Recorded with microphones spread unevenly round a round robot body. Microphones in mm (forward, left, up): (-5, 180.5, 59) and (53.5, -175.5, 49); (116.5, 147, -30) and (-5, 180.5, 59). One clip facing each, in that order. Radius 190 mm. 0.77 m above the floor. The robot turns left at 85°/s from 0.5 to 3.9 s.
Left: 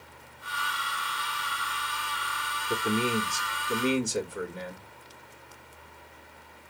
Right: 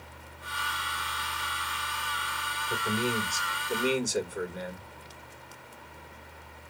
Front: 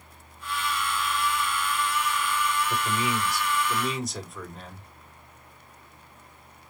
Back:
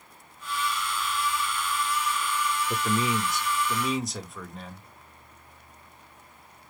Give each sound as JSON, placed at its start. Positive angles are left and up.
{"t": 2.7, "sound": "a man speaking", "azimuth_deg": 115, "distance_m": 1.2}